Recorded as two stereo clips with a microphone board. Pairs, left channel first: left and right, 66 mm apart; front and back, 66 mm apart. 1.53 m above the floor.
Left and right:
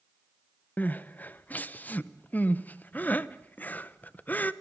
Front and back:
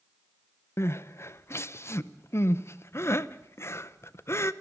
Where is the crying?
35° left, 0.7 m.